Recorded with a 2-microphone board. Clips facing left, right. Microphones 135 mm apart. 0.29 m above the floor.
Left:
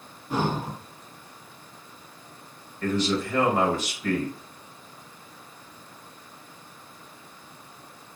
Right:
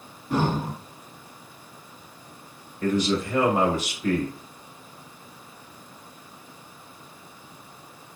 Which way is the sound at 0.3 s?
10° left (ahead or behind).